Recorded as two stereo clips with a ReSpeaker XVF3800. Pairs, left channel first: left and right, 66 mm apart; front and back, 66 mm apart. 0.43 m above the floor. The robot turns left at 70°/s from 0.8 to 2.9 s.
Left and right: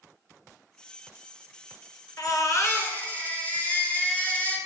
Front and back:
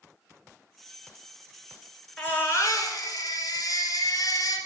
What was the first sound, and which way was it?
A baby crying, 75° left.